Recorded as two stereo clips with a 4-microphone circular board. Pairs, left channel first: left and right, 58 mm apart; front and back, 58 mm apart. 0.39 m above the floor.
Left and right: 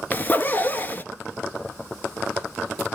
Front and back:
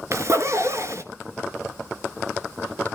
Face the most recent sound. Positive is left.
turn(degrees=145)